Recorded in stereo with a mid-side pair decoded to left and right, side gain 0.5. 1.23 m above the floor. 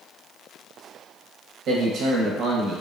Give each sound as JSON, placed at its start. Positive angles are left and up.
{"t": 1.7, "sound": "a man speaking", "azimuth_deg": -60, "distance_m": 0.8}